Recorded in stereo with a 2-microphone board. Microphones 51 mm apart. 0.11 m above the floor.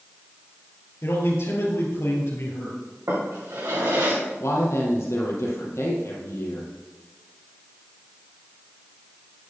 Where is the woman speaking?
65° left (ahead or behind), 3.5 m.